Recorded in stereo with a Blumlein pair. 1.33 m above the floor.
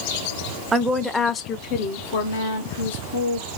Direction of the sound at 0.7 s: 15° right.